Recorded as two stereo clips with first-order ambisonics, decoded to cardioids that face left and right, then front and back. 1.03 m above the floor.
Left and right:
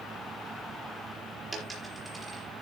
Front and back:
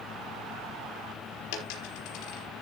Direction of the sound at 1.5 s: 15° right.